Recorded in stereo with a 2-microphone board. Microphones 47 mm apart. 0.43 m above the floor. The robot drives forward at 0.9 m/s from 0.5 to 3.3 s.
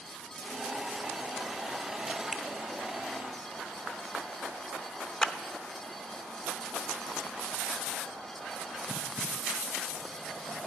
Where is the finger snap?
5° right (ahead or behind), 0.9 m.